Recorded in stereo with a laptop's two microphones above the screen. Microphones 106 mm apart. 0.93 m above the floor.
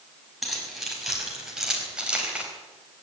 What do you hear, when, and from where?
0.4 s keys jangling: centre (ahead or behind), 5 m; by 2.5 s 10° right (ahead or behind), 3.5 m